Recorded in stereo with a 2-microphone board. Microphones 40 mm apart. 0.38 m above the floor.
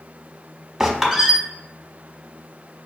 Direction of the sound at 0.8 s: 10° right (ahead or behind).